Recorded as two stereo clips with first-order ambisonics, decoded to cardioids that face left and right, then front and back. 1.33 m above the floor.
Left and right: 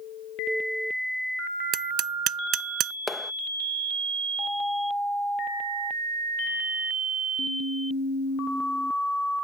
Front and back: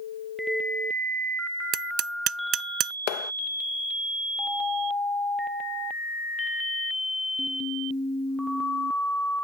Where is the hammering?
135° right.